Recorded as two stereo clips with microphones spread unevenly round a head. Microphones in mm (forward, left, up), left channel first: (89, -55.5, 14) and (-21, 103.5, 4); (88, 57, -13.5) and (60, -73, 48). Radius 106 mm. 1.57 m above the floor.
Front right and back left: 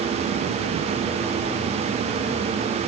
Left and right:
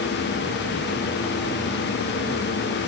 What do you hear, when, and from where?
Only background noise.